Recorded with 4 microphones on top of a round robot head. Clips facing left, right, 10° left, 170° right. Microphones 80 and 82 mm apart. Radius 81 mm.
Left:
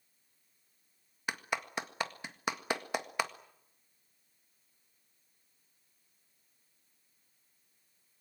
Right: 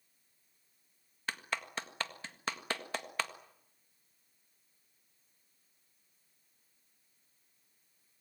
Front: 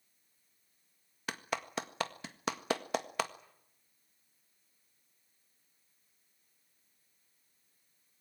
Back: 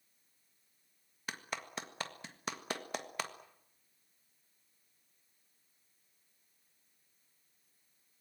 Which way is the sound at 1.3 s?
15° left.